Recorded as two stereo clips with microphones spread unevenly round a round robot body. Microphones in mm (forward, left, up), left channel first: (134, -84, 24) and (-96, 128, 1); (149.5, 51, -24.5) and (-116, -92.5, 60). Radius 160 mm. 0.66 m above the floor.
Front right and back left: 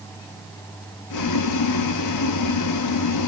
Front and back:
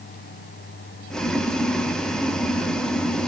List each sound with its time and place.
1.1 s boiling: 45° right, 0.7 m